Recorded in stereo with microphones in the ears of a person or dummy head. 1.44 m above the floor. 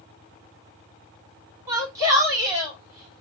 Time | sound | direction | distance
1.7 | a shout | 15° right (ahead or behind) | 3 m